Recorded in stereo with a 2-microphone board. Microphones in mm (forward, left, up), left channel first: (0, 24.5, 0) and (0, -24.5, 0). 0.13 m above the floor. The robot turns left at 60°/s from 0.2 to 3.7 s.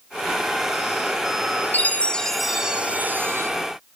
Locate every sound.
1.7 s a chime: 45° left, 1.5 m; by 3.5 s 60° right, 1.5 m